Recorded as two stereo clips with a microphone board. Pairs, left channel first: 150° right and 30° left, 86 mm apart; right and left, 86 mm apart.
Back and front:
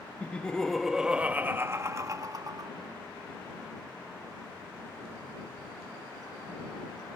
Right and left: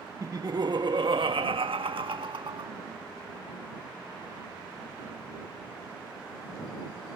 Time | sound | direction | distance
0.2 | laughter | 140° left | ?